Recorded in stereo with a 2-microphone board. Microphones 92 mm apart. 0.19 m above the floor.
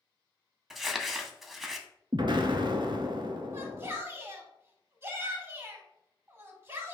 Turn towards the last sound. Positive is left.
turn(degrees=-25)  # may be behind; listen again after turning